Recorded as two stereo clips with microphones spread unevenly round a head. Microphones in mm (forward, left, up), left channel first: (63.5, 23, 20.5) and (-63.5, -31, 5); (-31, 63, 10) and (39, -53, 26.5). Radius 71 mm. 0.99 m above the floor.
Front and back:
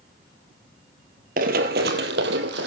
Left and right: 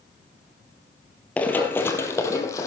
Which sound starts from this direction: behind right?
Running footsteps, at 1.4 s.